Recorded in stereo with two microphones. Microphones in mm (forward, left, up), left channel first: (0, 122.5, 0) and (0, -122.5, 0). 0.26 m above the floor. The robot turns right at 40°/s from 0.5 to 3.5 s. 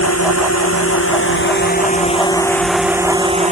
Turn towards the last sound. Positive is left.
turn(degrees=-150)